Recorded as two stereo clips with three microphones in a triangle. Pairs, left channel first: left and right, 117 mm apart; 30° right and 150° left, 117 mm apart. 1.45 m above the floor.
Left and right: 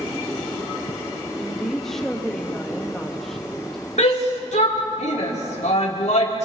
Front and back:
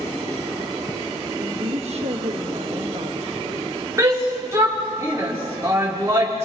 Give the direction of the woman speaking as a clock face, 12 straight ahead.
6 o'clock.